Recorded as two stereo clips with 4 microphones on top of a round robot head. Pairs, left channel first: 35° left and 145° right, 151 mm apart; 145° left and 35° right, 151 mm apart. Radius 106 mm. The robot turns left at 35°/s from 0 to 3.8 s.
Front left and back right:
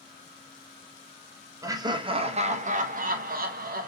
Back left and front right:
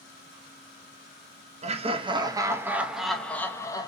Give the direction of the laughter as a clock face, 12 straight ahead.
3 o'clock.